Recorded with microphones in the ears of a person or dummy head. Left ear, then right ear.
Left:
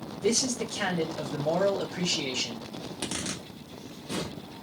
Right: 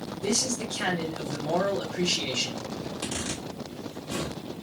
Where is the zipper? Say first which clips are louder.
Left 1 dB; 60° left (ahead or behind), 1.5 m.